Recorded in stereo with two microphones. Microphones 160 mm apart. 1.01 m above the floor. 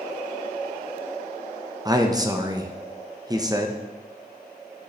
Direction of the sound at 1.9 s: 25° right (ahead or behind).